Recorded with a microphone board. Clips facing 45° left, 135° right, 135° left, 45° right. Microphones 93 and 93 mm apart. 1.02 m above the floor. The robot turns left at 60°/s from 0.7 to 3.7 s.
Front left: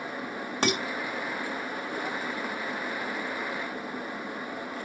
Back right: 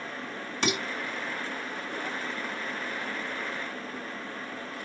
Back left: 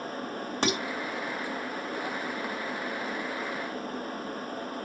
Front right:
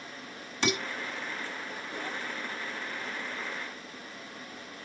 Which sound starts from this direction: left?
Dishes clattering, at 0.6 s.